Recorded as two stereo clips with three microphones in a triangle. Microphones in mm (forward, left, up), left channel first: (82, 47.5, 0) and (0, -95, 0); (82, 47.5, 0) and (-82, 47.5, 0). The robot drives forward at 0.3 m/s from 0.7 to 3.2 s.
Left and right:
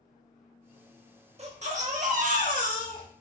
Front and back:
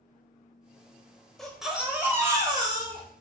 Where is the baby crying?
85° right, 0.7 m; by 3.0 s 130° right, 0.8 m.